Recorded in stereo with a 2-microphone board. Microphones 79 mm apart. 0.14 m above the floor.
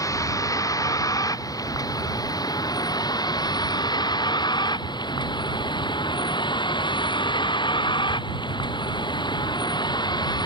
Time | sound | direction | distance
0.0 | a vehicle | 50° left (ahead or behind) | ?